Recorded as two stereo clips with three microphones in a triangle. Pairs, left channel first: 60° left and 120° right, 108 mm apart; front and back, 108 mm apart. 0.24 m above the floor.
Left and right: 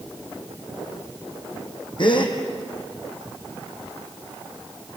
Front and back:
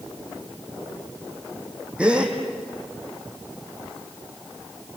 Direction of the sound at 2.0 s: 100° left.